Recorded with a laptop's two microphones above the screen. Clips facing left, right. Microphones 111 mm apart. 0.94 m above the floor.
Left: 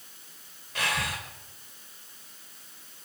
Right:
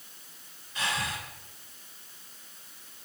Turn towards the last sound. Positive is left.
turn(degrees=85)